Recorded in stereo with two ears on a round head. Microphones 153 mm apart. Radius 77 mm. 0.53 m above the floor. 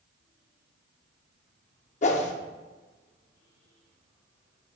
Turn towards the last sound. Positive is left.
turn(degrees=40)  # may be behind; listen again after turning